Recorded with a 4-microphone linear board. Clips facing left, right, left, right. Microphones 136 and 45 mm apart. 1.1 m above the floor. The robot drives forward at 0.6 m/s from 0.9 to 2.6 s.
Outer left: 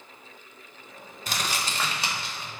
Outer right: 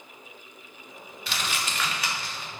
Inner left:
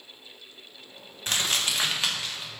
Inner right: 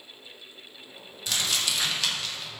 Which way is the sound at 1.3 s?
40° left (ahead or behind).